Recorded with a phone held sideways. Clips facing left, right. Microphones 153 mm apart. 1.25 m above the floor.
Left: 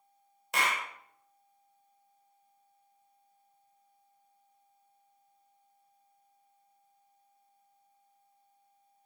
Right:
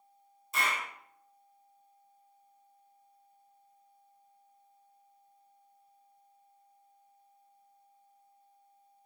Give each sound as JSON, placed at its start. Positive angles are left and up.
{"t": 0.5, "sound": "a clap", "side_deg": 70, "distance_m": 0.7}